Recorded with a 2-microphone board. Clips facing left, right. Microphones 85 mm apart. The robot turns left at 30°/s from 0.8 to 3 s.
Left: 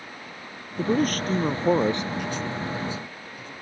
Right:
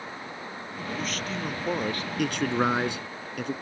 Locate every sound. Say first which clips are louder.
0.8 s a man speaking: left 10 dB; 55° left; by 2.1 s 15° left
2.2 s a man speaking: right 5 dB; 65° right (ahead or behind); by 3.5 s 70° right (ahead or behind)